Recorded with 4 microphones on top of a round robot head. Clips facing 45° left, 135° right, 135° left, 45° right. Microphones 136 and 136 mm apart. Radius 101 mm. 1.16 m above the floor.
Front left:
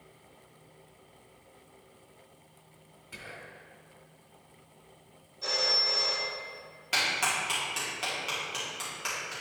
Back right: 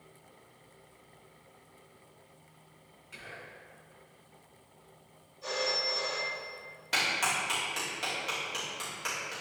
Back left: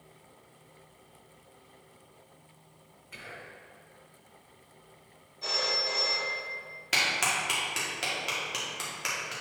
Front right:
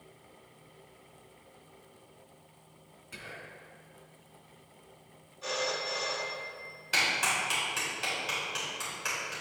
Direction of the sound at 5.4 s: 75° left.